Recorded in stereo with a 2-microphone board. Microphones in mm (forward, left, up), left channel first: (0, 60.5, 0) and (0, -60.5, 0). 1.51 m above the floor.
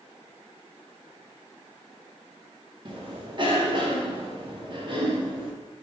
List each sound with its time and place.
2.9 s a cough: 40° right (ahead or behind), 0.9 m